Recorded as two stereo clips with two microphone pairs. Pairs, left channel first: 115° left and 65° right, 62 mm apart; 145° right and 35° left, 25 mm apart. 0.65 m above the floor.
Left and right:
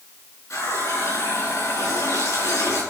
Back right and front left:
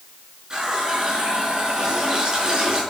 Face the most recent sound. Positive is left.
turn(degrees=90)